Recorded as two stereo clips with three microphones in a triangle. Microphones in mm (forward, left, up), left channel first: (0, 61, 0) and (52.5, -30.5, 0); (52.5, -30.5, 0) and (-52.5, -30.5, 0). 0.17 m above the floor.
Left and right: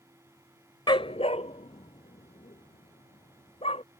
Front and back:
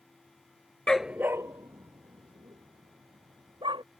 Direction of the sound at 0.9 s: 80° left.